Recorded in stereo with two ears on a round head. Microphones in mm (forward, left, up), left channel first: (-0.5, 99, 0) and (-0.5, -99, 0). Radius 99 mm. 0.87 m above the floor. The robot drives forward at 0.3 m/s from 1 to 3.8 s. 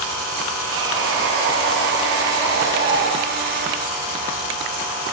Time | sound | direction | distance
0.7 | sawing | 55° right (ahead or behind) | 6.5 m